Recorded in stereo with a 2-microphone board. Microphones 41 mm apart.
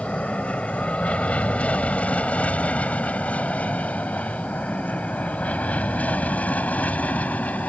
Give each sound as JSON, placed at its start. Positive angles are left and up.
{"t": 0.0, "sound": "an aircraft", "side_deg": 30}